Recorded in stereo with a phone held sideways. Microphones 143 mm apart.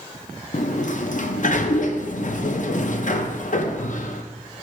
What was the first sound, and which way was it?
A sliding door, 65° left (ahead or behind).